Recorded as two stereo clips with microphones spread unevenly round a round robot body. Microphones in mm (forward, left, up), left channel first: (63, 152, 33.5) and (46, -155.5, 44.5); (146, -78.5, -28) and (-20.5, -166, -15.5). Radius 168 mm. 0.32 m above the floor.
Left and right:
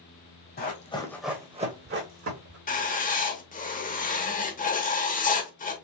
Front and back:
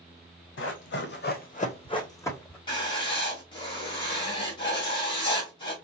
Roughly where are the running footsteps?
Ahead left.